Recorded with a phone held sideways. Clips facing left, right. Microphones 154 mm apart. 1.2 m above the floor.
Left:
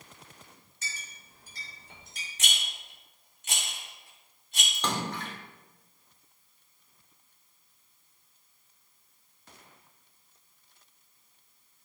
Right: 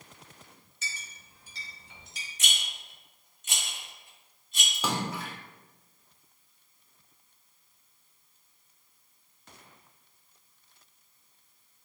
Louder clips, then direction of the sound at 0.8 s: Right 1 dB; 55° left (ahead or behind).